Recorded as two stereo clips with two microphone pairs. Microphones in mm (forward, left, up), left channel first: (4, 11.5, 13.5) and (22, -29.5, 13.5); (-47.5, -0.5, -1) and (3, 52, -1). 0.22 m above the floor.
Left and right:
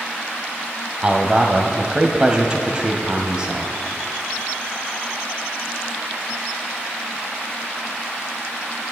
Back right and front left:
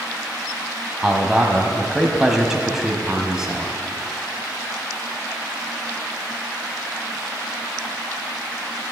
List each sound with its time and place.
1.0 s a man speaking: 30° right, 1.1 m